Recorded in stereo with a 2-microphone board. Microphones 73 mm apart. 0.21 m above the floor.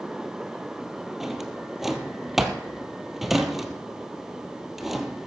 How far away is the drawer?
About 1.2 m.